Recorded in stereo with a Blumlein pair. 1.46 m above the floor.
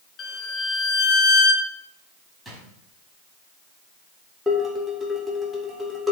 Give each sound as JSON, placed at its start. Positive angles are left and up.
{"t": 0.2, "sound": "a violin", "azimuth_deg": 25, "distance_m": 1.2}
{"t": 2.5, "sound": "a drawer", "azimuth_deg": -5, "distance_m": 4.5}
{"t": 4.5, "sound": "dishes clattering", "azimuth_deg": 0, "distance_m": 3.0}